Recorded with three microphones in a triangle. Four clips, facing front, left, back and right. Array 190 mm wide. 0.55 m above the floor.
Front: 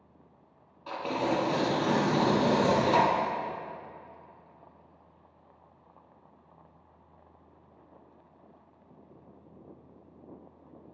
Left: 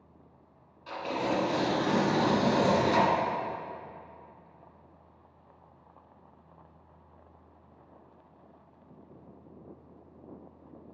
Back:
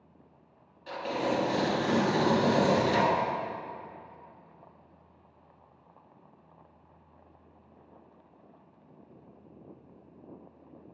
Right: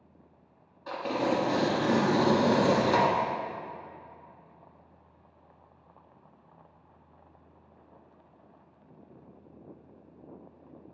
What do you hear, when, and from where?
0.9 s tearing paper: 35° right, 1.5 m